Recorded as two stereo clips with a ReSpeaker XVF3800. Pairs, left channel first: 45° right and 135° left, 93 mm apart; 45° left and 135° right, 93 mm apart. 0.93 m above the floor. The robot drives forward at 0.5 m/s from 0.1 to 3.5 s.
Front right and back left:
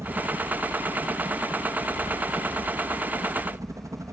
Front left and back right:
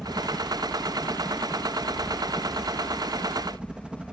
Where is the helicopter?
145° left; by 4.1 s 150° left.